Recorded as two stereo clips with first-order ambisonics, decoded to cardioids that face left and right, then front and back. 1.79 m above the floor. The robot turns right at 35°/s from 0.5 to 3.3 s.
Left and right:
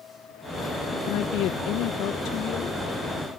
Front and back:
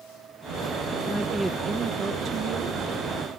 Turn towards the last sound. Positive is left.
turn(degrees=165)